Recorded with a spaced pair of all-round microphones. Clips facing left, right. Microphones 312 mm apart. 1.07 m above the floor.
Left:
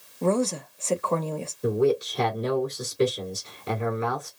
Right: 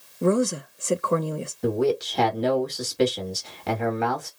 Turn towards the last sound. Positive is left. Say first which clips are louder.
# even
turn(degrees=-80)